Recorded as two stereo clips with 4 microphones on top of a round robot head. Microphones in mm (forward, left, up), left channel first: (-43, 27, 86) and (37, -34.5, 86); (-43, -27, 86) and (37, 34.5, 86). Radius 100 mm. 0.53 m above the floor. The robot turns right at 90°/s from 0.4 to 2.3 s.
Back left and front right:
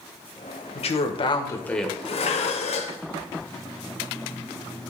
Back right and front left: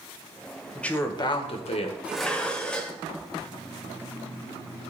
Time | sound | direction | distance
0.8 | a woman speaking | 130° left | 1.8 m
2.0 | dishes clattering | 115° left | 1.4 m